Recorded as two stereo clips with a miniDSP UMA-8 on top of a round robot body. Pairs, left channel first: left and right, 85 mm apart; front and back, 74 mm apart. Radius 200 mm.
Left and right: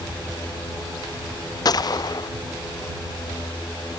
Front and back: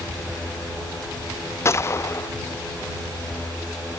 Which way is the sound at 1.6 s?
50° left.